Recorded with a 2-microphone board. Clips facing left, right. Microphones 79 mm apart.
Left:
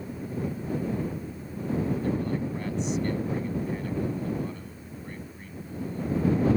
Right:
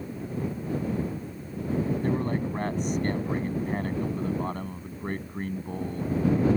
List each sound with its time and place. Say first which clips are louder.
2.0 s a man speaking: right 1 dB; 45° right (ahead or behind); by 6.1 s 60° right (ahead or behind)